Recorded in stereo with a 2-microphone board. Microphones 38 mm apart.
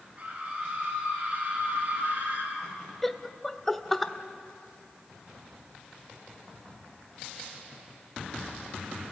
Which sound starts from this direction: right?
A scream, at 0.2 s.